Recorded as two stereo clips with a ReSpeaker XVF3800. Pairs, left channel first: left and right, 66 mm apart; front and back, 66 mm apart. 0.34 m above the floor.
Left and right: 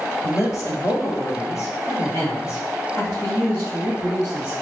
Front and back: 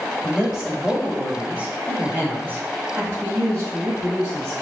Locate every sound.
0.2 s a man speaking: 90° left, 1.7 m; by 4.5 s 140° left, 3 m